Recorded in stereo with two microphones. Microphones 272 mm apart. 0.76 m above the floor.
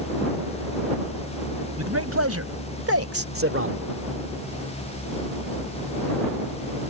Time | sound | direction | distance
1.8 | a man speaking | 65° right (ahead or behind) | ?